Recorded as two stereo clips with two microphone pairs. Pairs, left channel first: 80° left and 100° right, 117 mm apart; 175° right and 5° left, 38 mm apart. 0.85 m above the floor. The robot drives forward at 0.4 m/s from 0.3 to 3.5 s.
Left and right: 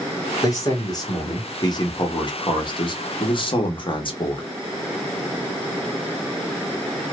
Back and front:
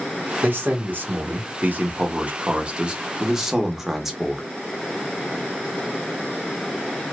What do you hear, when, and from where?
0.4 s a man speaking: 25° left, 1.6 m; by 4.5 s 80° left, 0.9 m